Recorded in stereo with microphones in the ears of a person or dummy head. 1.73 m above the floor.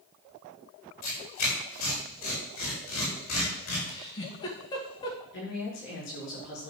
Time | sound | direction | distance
1.0 | tearing paper | 50° left (ahead or behind) | 5.5 m
3.9 | a giggle | 30° left (ahead or behind) | 2.5 m
5.3 | a woman speaking | 60° left (ahead or behind) | 6.5 m